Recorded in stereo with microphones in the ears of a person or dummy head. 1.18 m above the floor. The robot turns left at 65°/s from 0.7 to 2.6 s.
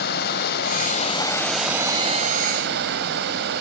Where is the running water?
60° left, 2.5 m; by 3.6 s 65° right, 2.5 m.